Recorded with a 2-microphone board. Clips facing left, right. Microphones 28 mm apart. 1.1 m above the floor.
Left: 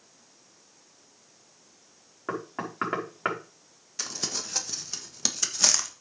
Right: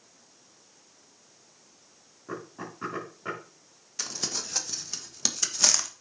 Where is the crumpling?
Centre (ahead or behind), 1.4 m.